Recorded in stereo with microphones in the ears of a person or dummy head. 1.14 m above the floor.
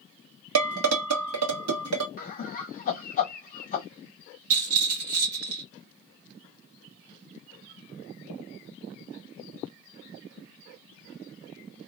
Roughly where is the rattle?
Right.